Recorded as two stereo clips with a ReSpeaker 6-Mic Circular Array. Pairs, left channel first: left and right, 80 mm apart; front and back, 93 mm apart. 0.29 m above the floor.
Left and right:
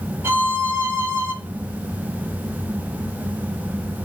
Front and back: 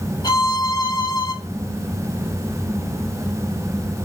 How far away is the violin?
About 0.6 m.